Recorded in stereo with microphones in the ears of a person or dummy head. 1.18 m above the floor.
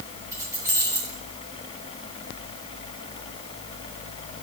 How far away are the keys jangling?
About 6.5 m.